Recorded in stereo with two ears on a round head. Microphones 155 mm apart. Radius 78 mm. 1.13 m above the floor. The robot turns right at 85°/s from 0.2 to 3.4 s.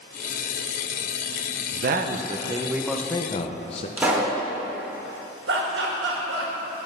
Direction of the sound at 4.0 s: 10° right (ahead or behind).